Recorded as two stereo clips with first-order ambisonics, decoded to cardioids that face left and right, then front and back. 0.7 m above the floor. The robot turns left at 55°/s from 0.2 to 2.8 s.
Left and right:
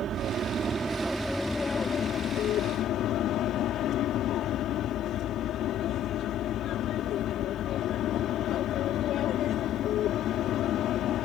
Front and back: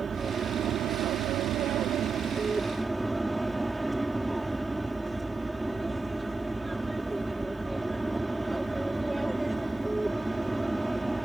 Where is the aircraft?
120° right; by 11.2 s 100° left.